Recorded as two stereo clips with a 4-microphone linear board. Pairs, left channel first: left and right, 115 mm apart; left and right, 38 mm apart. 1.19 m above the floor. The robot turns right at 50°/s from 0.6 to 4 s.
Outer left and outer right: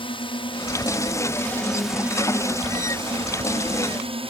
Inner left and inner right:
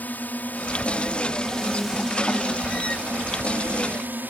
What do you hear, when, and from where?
0.0 s a drone: 120° left; by 4.3 s 70° right